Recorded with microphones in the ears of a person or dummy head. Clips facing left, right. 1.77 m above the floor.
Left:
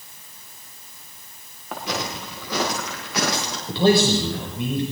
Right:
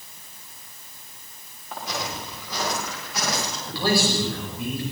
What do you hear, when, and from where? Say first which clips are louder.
1.7 s footsteps: left 3 dB; 55° left (ahead or behind), 8.5 m; by 3.6 s 60° left (ahead or behind), 10 m
3.7 s a man speaking: left 6 dB; 25° left (ahead or behind), 6.5 m